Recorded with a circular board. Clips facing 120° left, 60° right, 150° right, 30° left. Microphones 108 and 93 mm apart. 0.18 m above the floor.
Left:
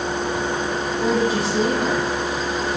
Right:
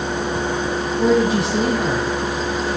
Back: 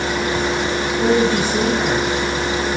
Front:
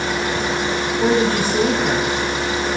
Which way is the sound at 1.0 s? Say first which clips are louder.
Right 4 dB, back 1 dB; 80° right.